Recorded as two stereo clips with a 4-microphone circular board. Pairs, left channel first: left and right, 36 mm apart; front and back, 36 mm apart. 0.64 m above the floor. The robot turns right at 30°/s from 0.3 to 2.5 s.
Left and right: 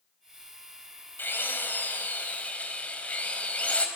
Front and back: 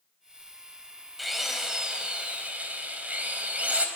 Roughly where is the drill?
Left.